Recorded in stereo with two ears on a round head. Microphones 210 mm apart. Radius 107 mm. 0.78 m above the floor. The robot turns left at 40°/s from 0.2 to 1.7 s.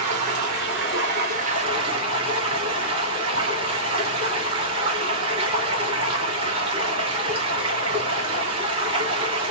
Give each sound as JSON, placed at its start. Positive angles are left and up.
{"t": 0.0, "sound": "running water", "azimuth_deg": -95, "distance_m": 2.5}